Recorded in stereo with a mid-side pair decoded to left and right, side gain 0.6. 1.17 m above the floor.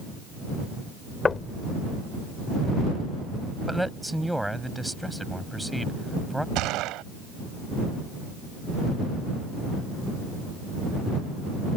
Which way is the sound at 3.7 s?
5° right.